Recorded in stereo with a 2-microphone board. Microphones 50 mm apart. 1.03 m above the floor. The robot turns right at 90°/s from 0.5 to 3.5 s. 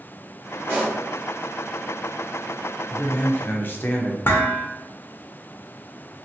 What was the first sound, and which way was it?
A pop, 40° right (ahead or behind).